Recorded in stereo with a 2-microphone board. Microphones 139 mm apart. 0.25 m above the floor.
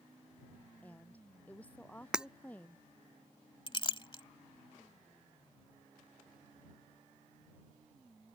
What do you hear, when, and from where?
0.8 s a woman speaking: 10° left (ahead or behind)
2.1 s breaking glass: 5° right (ahead or behind)
3.7 s a clink: 35° left (ahead or behind)